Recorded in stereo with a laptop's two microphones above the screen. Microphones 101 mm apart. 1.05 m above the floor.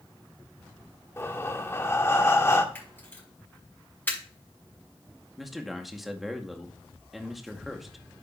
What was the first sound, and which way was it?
Breathing, 25° left (ahead or behind).